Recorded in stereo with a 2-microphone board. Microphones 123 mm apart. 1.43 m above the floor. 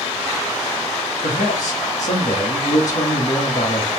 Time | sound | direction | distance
1.2 | a man speaking | 70° left (ahead or behind) | 1.1 m